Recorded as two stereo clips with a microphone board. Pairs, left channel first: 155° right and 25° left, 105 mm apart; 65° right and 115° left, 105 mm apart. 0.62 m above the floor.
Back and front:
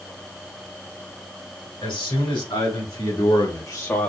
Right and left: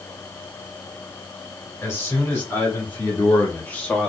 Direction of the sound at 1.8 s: 135° right.